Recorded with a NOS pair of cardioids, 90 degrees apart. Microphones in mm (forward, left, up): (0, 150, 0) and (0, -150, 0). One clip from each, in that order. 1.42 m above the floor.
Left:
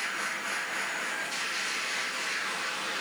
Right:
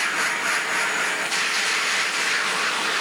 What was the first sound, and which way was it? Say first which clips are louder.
A machine running: right 10 dB; 65° right.